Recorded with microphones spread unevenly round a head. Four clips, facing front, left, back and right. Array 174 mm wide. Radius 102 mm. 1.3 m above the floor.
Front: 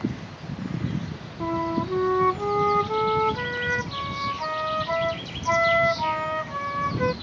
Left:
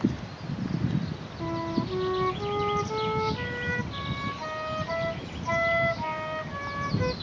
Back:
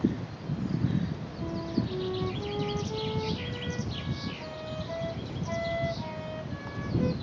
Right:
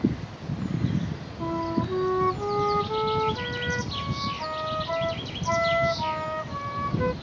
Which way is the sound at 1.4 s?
Straight ahead.